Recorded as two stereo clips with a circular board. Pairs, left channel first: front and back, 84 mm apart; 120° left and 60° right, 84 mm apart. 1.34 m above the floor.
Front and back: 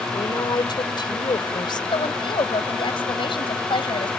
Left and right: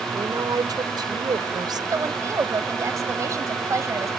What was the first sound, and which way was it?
A woman speaking, 25° right.